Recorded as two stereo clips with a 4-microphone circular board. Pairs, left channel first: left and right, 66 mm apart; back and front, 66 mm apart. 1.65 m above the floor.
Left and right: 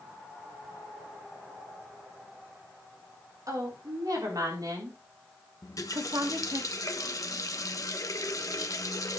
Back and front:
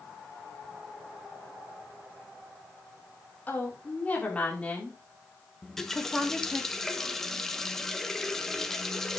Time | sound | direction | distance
3.5 | a woman speaking | 115° right | 4.5 m
5.6 | a running tap | 95° left | 1.1 m